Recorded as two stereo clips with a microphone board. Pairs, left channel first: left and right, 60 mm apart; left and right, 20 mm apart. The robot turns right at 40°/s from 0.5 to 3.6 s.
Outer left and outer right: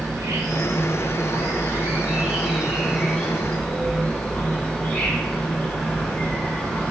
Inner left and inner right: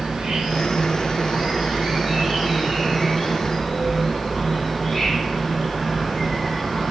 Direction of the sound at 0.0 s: 100° right.